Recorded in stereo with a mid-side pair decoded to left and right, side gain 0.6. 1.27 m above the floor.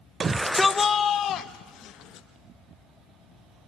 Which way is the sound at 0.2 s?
35° right.